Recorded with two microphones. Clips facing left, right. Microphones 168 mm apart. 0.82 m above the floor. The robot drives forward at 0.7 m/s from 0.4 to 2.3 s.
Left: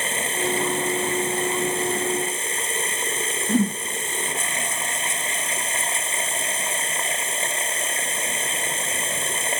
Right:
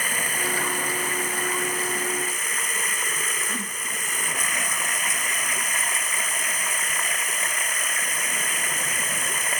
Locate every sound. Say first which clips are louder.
0.0 s running water: left 4 dB; 25° left (ahead or behind)
3.5 s a whoosh: left 14 dB; 55° left (ahead or behind)